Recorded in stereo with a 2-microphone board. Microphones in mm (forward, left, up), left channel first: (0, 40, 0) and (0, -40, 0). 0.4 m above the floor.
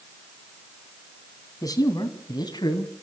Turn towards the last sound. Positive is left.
turn(degrees=65)  # may be behind; listen again after turning